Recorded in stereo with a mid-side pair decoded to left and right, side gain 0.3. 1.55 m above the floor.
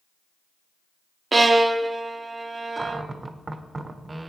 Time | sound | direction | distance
1.3 | a violin | 40° right | 0.9 m
2.8 | a cupboard door | 35° right | 1.0 m